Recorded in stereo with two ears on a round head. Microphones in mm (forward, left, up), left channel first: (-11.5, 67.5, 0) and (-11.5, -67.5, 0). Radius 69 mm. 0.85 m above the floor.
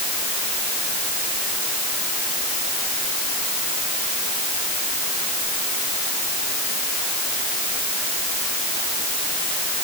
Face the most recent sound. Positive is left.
No sound to turn to.